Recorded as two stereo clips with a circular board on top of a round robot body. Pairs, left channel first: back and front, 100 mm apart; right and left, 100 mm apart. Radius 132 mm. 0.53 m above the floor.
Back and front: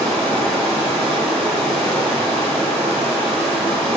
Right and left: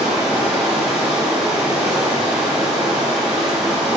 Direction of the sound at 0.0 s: 10° left.